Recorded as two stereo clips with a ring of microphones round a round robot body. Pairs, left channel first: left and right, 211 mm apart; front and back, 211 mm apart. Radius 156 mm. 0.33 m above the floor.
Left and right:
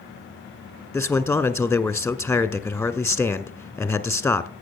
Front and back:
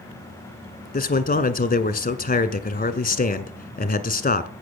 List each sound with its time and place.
0.9 s a man speaking: 10° left, 1.6 m